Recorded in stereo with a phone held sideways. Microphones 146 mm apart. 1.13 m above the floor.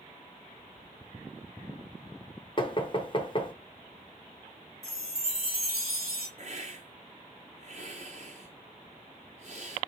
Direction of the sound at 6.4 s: 50° right (ahead or behind).